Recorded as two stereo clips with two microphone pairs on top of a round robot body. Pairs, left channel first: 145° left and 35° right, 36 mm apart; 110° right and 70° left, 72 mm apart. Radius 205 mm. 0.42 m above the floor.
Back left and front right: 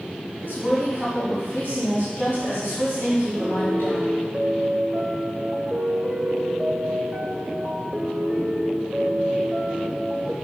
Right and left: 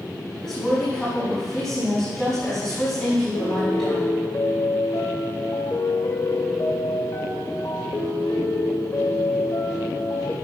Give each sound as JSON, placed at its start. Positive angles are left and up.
{"t": 0.4, "sound": "a woman speaking", "azimuth_deg": 170, "distance_m": 4.5}
{"t": 3.4, "sound": "a piano", "azimuth_deg": -105, "distance_m": 1.6}